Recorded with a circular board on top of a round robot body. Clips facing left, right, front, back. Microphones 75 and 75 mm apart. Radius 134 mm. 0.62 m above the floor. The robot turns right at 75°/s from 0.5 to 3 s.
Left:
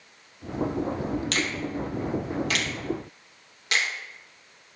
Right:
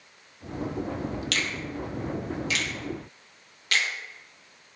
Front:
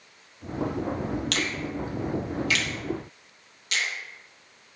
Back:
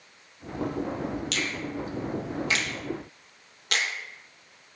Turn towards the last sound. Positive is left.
turn(degrees=160)